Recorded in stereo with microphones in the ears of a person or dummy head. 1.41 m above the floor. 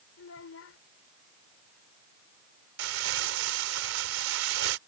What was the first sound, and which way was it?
A child speaking, 75° left (ahead or behind).